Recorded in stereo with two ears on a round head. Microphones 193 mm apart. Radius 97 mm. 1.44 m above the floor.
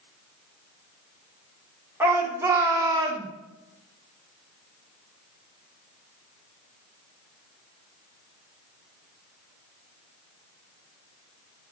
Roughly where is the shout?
Centre.